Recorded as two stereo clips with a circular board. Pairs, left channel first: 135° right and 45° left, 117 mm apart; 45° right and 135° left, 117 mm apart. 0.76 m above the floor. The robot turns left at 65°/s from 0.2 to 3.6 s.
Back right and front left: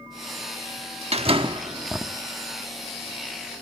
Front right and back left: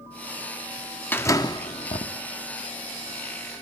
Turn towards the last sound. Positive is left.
turn(degrees=-130)